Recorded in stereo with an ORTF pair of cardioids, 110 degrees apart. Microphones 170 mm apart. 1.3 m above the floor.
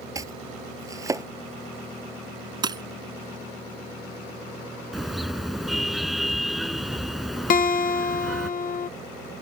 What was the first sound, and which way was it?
Chopping, 20° right.